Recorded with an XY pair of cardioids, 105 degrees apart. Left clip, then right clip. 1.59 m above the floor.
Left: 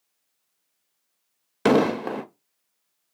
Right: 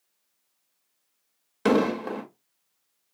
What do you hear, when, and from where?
1.6 s an explosion: 35° left, 0.5 m